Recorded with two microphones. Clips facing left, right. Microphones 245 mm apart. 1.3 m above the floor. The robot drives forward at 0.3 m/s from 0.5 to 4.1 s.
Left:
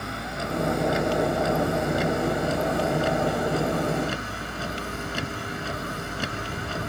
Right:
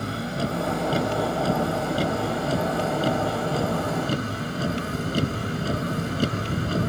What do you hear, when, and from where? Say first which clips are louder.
0.0 s a vehicle: right 5 dB; 35° right (ahead or behind); by 6.9 s 40° right (ahead or behind)